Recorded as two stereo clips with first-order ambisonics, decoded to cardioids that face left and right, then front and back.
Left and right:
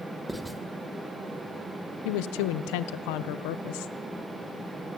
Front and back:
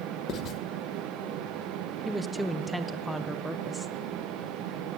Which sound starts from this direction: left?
A woman speaking, at 2.0 s.